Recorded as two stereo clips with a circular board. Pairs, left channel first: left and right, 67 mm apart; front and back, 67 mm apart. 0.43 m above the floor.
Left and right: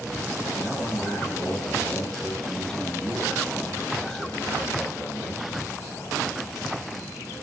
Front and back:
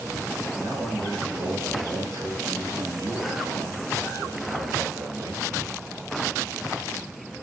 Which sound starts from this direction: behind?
A man speaking, at 0.6 s.